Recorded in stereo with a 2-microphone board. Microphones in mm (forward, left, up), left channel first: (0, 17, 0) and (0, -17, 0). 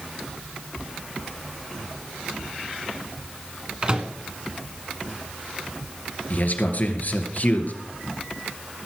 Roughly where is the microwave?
Right.